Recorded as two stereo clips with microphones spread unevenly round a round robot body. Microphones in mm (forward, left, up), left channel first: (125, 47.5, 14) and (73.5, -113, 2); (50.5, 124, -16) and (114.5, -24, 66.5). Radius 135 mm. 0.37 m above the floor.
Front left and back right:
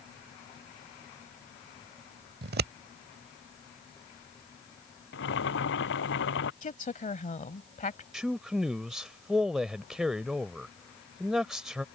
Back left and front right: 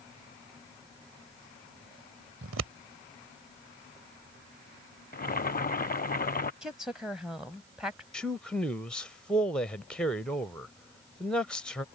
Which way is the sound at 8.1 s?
170° left.